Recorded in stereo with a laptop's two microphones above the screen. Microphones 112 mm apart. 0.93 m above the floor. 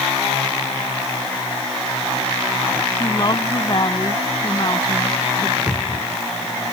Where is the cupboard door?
10° right (ahead or behind).